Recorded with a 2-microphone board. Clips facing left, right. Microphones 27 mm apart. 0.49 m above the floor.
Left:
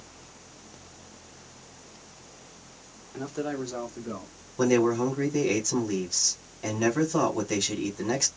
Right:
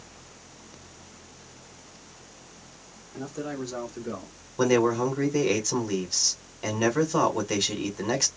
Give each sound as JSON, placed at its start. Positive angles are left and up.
{"t": 3.1, "sound": "a man speaking", "side_deg": 35, "distance_m": 1.4}
{"t": 4.6, "sound": "a man speaking", "side_deg": -20, "distance_m": 1.5}